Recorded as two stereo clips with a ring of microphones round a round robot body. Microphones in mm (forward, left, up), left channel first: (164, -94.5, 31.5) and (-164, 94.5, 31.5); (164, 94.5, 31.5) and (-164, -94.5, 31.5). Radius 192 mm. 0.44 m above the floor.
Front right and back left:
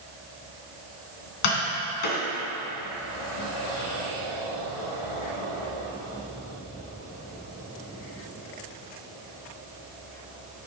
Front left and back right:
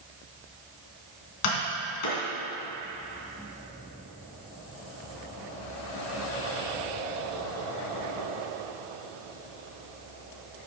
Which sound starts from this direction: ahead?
Tapping, at 1.4 s.